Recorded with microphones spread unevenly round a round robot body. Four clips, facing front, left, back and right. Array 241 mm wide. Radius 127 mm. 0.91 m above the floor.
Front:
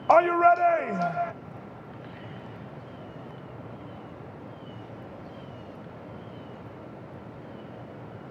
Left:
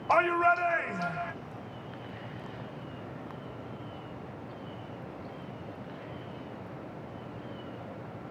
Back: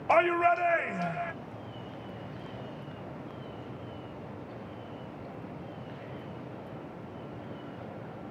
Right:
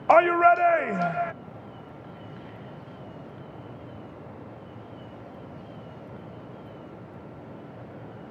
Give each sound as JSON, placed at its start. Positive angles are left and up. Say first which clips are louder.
{"t": 0.1, "sound": "a shout", "louder": "right 7 dB, front 6 dB", "azimuth_deg": -65, "distance_m": 0.6}